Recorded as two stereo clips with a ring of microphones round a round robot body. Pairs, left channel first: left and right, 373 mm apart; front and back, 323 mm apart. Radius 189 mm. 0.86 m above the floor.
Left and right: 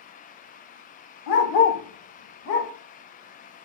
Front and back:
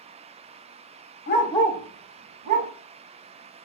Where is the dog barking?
55° left, 0.7 m; by 2.7 s 150° left, 1.1 m.